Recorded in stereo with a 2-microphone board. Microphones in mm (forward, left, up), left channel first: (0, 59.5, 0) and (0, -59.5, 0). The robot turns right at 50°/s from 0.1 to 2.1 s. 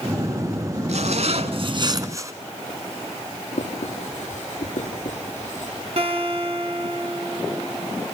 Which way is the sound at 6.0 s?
55° right (ahead or behind).